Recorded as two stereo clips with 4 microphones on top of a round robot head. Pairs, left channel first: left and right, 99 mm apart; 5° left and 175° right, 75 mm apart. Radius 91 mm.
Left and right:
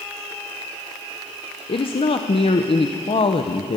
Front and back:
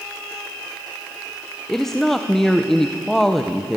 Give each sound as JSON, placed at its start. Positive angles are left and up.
{"t": 1.7, "sound": "a woman speaking", "azimuth_deg": 90, "distance_m": 1.0}